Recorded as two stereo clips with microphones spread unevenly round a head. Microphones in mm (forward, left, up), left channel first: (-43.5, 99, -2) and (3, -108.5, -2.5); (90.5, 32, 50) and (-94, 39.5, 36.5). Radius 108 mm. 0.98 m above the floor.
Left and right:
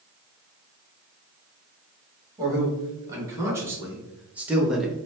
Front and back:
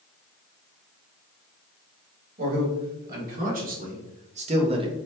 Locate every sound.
2.4 s a man speaking: 150° right, 1.9 m; by 5.0 s 165° right, 0.8 m